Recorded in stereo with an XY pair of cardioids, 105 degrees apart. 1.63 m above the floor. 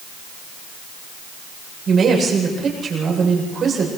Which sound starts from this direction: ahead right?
A woman speaking, at 1.9 s.